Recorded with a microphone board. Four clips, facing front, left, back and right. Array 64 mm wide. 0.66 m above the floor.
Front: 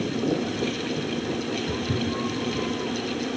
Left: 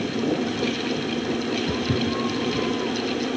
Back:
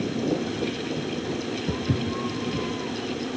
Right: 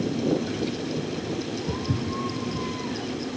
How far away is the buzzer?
No buzzer in this recording.